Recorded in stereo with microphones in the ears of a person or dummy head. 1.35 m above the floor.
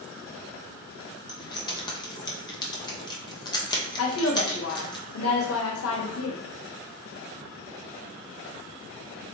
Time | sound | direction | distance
1.3 | keys jangling | 30° left (ahead or behind) | 0.9 m
4.0 | a woman speaking | 75° left (ahead or behind) | 1.0 m